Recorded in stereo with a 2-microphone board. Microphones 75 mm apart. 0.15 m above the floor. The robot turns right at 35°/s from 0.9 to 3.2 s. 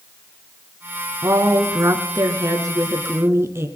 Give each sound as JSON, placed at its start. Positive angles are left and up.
{"t": 1.2, "sound": "a woman speaking", "azimuth_deg": -120, "distance_m": 1.7}